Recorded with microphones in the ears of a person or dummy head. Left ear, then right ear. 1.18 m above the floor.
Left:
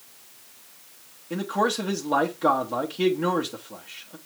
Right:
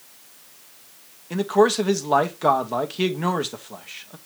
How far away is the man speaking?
About 1.0 m.